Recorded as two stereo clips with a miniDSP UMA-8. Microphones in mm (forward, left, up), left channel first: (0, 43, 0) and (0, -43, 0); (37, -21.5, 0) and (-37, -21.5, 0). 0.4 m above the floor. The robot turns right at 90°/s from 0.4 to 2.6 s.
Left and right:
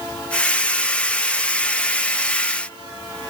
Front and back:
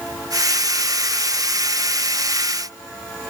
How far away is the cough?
I don't hear a cough.